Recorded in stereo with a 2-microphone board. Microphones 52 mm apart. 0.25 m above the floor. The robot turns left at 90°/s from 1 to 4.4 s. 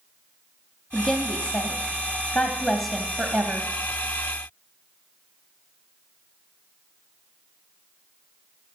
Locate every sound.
0.9 s a woman speaking: 170° left, 1.1 m; by 3.7 s 75° right, 1.1 m